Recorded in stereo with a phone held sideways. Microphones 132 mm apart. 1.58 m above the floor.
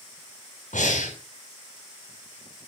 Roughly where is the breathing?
Left.